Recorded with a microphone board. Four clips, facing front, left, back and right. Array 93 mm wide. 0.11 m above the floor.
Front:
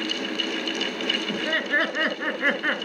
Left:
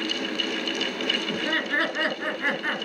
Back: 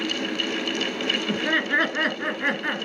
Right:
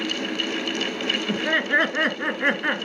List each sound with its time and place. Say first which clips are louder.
1.3 s laughter: right 7 dB, back 3 dB; 135° right, 1.8 m; by 2.9 s 45° right, 1.8 m